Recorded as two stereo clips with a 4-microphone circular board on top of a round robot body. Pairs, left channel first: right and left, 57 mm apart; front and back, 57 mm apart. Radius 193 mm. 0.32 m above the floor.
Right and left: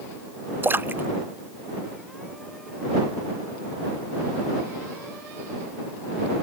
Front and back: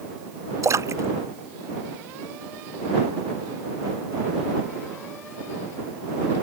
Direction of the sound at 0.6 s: 145° left.